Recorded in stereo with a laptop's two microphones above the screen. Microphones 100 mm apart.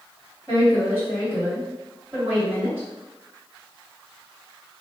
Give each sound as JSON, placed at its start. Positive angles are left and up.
{"t": 0.5, "sound": "a woman speaking", "side_deg": -20, "distance_m": 2.0}